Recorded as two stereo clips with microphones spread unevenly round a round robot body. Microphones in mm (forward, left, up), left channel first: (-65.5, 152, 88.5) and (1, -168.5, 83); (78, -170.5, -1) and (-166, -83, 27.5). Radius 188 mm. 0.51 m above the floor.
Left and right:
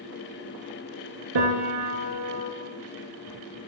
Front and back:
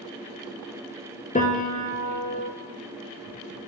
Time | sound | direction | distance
1.4 | a piano | 80° right | 2.5 m